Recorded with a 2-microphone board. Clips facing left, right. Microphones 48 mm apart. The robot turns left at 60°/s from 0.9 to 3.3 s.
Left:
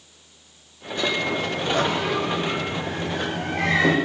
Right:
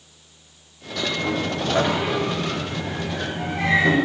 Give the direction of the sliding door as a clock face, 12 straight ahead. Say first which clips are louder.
Even; 3 o'clock.